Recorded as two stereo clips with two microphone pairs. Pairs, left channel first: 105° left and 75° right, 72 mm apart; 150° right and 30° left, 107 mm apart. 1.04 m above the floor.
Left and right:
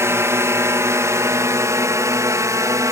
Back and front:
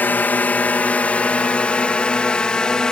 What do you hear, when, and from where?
0.0 s a drone: 85° right; by 2.9 s 70° right